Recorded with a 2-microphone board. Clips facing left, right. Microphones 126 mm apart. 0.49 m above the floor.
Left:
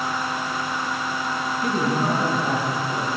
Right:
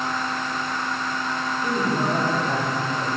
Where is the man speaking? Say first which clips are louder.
Left 1 dB; 80° left, 4 m.